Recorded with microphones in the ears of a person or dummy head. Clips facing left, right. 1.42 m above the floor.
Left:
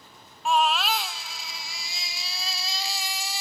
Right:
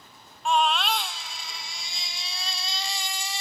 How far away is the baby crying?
About 0.7 m.